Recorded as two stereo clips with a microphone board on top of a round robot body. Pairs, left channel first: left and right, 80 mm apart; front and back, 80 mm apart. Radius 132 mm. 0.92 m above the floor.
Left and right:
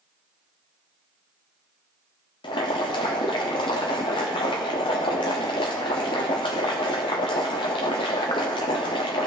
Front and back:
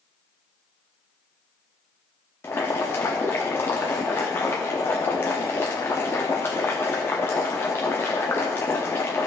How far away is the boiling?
About 0.6 m.